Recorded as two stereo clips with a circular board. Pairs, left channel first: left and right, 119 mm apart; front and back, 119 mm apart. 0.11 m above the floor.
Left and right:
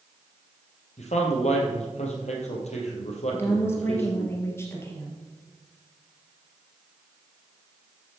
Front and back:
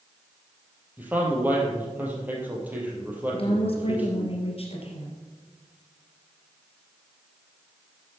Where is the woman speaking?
25° left, 2.5 m.